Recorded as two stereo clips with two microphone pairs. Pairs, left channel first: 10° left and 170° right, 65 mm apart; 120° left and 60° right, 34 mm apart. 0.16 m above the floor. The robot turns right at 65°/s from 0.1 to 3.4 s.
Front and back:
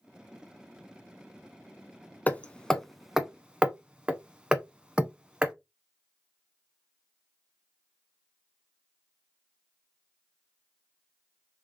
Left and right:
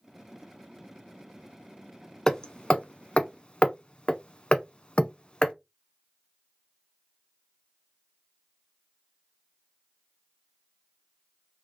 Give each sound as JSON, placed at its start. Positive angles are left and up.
{"t": 2.3, "sound": "hammering", "azimuth_deg": 65, "distance_m": 0.6}